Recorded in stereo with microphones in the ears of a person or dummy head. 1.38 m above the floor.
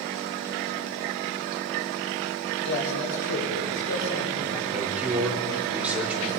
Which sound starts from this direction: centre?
A man speaking, at 4.7 s.